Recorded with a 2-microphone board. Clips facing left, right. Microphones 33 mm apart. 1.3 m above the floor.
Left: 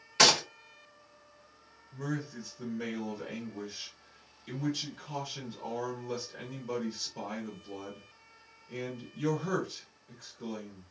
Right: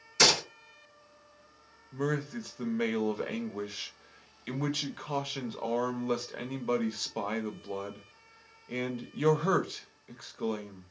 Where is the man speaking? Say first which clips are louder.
Right 5 dB; 65° right (ahead or behind), 0.6 m.